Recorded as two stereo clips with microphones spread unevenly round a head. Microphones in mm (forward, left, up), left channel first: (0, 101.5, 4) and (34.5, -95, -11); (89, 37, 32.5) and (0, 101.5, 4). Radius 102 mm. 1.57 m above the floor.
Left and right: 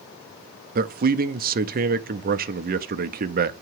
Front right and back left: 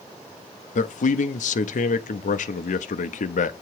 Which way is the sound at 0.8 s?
35° right.